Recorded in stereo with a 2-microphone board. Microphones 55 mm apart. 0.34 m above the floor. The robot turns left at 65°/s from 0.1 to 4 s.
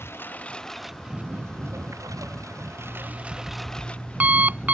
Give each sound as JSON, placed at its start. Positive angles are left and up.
{"t": 0.0, "sound": "a lawn mower", "azimuth_deg": 45}
{"t": 2.8, "sound": "an alarm clock", "azimuth_deg": 45}